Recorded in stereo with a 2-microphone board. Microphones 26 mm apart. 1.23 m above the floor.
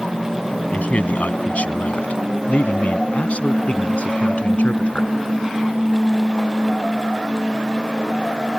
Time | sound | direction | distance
0.7 | a man speaking | 75° left (ahead or behind) | ?